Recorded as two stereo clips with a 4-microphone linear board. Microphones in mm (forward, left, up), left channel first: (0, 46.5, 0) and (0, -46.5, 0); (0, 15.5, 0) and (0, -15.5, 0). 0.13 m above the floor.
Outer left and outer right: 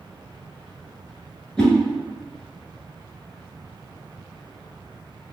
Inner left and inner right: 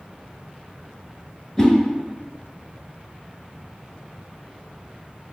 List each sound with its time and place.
1.6 s a whoosh: 10° left (ahead or behind), 1.1 m